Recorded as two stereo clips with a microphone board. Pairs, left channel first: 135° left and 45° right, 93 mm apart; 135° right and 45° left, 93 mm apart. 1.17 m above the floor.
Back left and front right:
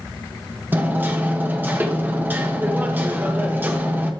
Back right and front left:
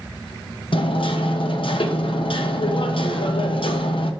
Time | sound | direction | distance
0.7 | hammering | 115° right | 1.2 m